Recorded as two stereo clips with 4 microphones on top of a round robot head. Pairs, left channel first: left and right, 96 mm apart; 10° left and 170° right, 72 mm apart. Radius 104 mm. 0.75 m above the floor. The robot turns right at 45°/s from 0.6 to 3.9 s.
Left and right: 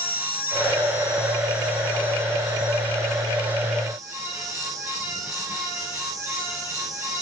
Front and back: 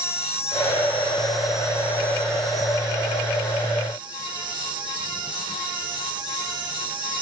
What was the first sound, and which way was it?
An insect, 65° left.